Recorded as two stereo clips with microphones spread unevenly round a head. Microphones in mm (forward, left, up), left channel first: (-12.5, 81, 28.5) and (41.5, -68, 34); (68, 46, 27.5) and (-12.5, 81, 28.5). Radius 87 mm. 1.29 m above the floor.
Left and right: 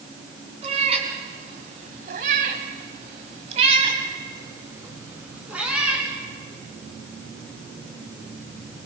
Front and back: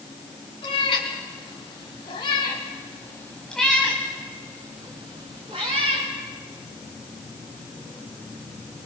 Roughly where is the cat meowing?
Ahead.